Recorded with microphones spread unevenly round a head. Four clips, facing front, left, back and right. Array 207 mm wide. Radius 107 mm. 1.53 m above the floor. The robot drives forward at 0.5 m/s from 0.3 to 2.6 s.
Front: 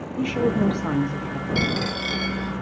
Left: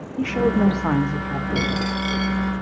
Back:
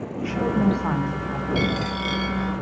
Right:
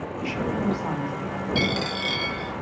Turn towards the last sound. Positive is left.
turn(degrees=-35)